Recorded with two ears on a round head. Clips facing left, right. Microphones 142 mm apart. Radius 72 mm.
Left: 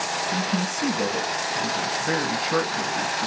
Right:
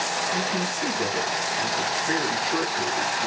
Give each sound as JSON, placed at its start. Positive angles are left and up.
{"t": 0.3, "sound": "a man speaking", "side_deg": 75, "distance_m": 4.5}